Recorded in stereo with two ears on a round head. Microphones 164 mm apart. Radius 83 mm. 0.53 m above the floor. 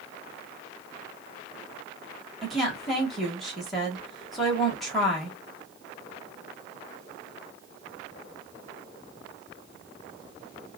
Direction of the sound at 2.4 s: Centre (ahead or behind).